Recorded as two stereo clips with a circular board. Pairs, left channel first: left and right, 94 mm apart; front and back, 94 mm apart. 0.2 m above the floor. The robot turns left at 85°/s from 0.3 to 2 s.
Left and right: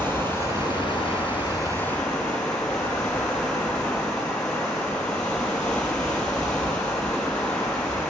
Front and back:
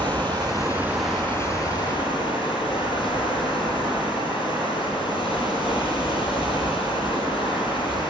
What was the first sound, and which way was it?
Running water, 155° left.